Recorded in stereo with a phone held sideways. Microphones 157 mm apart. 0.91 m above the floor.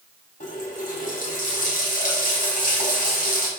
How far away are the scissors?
No scissors in this recording.